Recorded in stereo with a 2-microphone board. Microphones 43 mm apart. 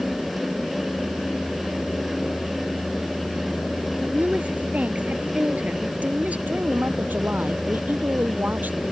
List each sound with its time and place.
4.0 s a woman speaking: 35° right (ahead or behind)
6.5 s a woman speaking: 45° right (ahead or behind)